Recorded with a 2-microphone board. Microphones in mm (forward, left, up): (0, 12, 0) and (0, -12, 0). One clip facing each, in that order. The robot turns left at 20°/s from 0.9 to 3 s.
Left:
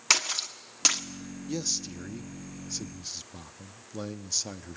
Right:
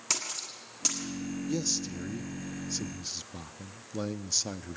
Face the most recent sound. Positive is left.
turn(degrees=-5)  # may be behind; listen again after turning